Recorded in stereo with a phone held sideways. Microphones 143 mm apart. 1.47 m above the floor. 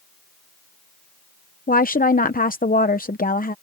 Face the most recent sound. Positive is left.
turn(degrees=80)